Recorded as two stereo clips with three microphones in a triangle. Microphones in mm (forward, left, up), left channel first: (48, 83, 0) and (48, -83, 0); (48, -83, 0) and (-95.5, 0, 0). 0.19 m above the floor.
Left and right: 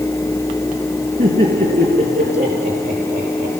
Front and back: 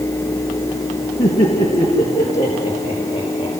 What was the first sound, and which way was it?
Laughter, 85° right.